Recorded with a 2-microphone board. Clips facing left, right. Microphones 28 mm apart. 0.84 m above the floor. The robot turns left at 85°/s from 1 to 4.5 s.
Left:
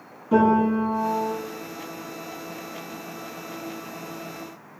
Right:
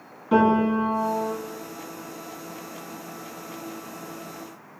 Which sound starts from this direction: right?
A piano, at 0.3 s.